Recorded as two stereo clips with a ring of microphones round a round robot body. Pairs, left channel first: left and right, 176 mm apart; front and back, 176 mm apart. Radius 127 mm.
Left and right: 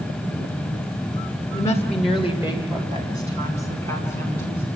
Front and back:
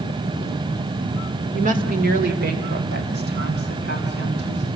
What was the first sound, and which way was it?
A woman speaking, 150° left.